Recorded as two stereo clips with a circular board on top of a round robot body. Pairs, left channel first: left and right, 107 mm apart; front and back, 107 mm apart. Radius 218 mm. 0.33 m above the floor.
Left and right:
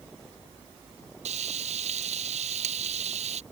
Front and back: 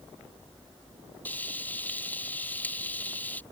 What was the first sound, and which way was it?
Frying, 75° right.